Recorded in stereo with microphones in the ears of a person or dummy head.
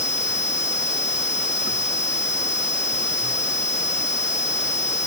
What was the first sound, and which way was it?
Only background noise.